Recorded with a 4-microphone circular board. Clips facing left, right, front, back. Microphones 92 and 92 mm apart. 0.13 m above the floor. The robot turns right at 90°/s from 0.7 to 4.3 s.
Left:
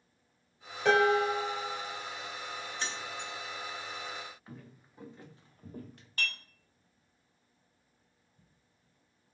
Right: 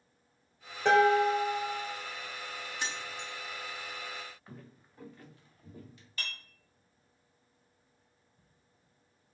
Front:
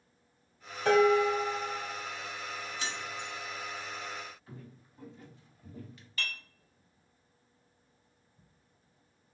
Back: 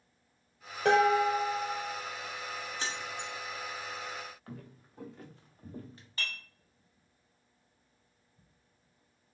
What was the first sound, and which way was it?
Dishes clattering, 165° right.